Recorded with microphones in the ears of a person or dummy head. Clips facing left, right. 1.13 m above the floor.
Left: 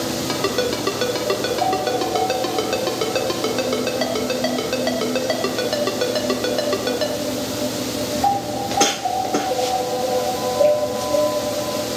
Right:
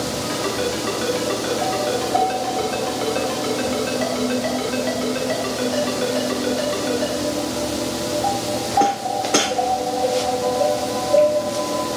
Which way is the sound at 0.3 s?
65° left (ahead or behind).